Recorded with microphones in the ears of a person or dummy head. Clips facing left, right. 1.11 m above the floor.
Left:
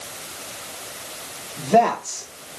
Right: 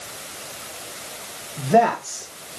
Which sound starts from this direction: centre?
A man speaking, at 1.6 s.